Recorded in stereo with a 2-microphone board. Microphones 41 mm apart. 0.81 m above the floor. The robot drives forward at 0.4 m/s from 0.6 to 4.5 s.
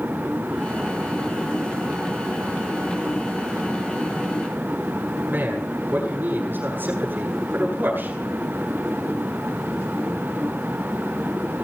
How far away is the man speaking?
About 9 m.